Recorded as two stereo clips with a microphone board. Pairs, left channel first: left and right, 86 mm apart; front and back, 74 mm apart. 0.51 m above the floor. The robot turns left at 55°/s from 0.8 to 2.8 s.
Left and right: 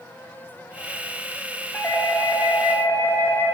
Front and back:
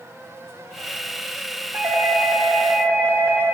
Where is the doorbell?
150° left, 1.6 m; by 3.5 s 95° left, 1.6 m.